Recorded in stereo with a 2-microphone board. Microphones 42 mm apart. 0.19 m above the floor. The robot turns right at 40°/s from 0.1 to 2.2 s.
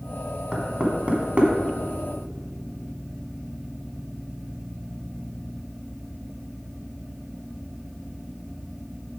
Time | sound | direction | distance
0.5 | knocking | 20° right (ahead or behind) | 1.4 m